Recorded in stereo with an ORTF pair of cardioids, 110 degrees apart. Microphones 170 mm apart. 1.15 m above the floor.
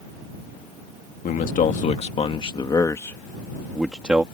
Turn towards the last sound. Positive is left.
turn(degrees=-10)